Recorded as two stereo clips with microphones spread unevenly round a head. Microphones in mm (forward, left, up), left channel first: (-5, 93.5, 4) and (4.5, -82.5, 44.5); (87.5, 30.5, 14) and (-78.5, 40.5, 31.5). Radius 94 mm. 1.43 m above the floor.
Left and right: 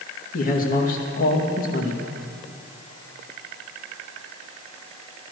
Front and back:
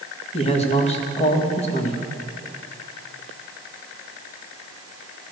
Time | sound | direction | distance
0.3 | a man speaking | 50° left | 2 m